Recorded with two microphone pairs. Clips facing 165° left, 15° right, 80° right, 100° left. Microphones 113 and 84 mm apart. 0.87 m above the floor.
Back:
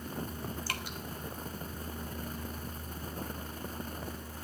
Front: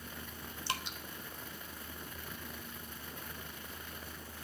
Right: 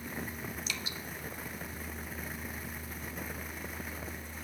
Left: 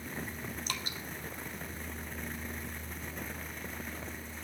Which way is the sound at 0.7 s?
55° left.